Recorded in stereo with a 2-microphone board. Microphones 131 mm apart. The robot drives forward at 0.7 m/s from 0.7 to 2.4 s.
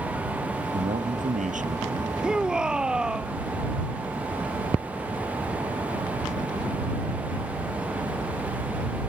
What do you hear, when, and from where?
0.7 s a man speaking: 80° right; by 2.1 s 70° right (ahead or behind)
2.2 s a shout: 5° right (ahead or behind)